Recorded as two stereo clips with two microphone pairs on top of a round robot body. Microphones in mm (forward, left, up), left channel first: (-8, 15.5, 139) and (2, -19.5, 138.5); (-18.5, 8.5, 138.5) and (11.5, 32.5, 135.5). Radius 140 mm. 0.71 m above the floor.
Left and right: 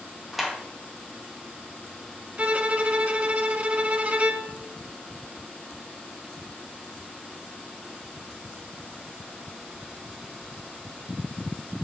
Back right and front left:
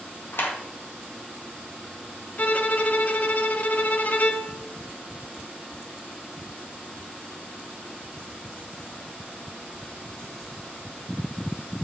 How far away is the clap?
About 1.9 m.